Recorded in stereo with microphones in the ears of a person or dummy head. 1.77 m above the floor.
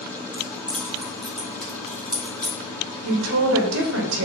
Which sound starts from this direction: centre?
Keys jangling, at 0.3 s.